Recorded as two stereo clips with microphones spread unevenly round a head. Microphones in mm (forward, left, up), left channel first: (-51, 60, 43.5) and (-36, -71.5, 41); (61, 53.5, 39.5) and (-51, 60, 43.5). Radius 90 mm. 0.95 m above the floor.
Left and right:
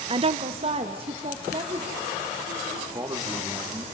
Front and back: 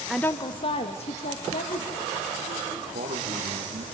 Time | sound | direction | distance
0.1 | a woman speaking | 95° right | 0.5 m
2.9 | a man speaking | 150° right | 2 m